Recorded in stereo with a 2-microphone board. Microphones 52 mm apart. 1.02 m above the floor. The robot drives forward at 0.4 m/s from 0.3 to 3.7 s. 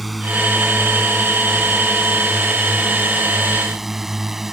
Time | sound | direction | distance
0.0 | a drone | centre (ahead or behind) | ?